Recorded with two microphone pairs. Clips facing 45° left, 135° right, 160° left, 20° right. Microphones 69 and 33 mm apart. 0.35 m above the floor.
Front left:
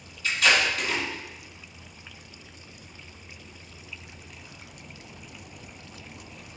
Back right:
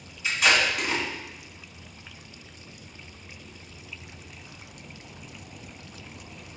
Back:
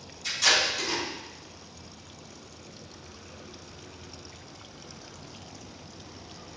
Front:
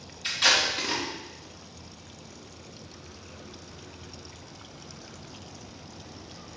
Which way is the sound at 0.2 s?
65° right.